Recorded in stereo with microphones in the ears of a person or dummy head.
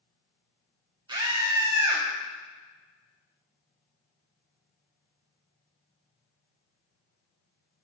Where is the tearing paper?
I don't hear tearing paper.